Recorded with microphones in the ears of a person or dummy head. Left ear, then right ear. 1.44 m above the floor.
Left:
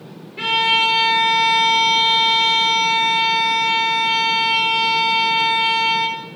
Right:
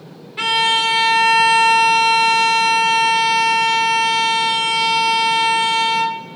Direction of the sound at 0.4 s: 40° right (ahead or behind).